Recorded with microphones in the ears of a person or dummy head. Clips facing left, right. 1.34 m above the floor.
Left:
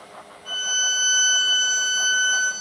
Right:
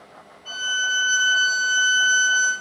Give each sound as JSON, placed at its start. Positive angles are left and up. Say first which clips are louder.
{"t": 0.5, "sound": "a violin", "louder": "right 3 dB", "side_deg": 30, "distance_m": 1.5}